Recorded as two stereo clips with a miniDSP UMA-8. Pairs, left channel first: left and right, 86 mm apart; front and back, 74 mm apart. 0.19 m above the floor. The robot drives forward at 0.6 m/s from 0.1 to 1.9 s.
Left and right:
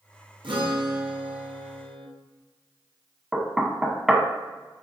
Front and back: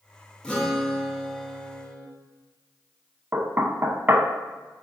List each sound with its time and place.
0.4 s a guitar: 80° right, 2.5 m; by 2.1 s 100° right, 2.5 m
3.3 s knocking: 170° right, 0.8 m